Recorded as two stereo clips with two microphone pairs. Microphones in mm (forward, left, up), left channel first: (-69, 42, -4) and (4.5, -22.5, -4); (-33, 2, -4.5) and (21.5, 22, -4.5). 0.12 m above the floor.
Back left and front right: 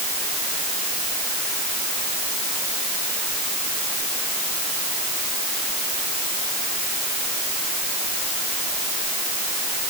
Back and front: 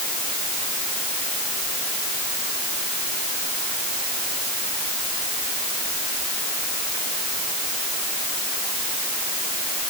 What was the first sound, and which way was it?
Only background noise.